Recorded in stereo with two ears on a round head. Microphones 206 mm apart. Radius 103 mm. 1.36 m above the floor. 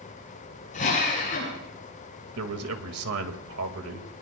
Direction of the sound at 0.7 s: 35° left (ahead or behind).